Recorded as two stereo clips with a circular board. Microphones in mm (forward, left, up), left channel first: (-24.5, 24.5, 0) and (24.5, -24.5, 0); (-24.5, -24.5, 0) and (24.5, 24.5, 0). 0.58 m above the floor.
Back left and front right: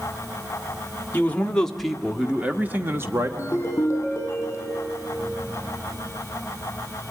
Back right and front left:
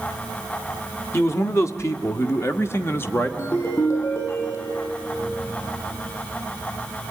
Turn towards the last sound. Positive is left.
turn(degrees=-175)